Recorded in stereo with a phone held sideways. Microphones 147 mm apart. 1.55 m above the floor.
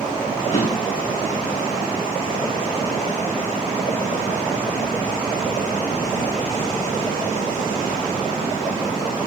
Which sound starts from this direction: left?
A drawer, at 0.5 s.